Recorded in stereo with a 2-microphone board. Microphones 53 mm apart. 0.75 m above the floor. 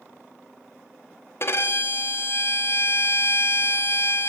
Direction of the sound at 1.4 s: 50° left (ahead or behind).